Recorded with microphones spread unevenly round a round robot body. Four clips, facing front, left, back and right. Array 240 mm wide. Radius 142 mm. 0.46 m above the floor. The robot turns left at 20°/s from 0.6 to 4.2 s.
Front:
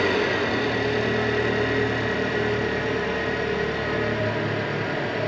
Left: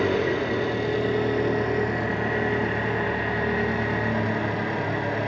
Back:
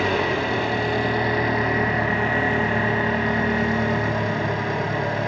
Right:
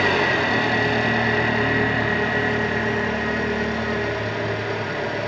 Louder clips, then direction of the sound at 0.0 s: Right 3 dB, even; 115° right.